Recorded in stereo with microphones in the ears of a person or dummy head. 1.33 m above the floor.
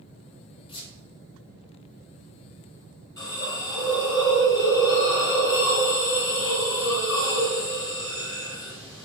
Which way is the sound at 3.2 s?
20° left (ahead or behind).